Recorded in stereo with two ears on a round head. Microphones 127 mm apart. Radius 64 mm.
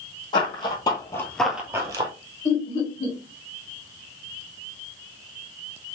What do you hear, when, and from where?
0.3 s running footsteps: 35° left (ahead or behind), 1.9 m; by 2.1 s 30° right (ahead or behind), 1.2 m
2.5 s laughter: 40° left (ahead or behind), 2 m